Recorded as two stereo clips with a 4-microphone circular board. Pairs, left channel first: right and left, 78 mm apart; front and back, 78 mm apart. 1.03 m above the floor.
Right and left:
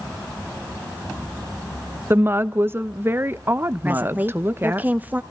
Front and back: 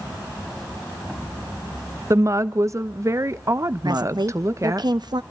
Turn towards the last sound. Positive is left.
turn(degrees=160)